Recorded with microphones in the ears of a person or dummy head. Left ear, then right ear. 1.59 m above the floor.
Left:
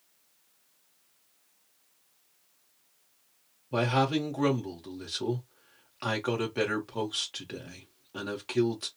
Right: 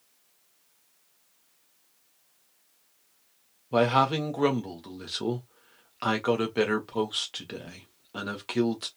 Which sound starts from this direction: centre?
A man speaking, at 3.7 s.